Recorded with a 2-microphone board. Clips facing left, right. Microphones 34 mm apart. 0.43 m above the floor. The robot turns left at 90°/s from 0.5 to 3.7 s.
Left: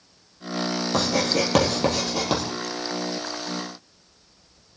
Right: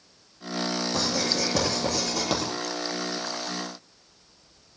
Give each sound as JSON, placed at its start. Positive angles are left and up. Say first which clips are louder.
{"t": 0.9, "sound": "writing", "louder": "left 7 dB", "side_deg": 50, "distance_m": 5.5}